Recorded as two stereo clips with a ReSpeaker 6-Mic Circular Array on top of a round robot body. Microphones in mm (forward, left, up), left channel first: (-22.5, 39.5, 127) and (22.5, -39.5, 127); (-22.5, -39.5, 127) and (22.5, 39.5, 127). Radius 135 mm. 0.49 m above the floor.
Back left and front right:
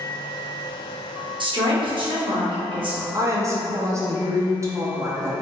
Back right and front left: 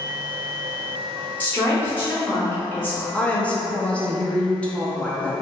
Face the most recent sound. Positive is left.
turn(degrees=-55)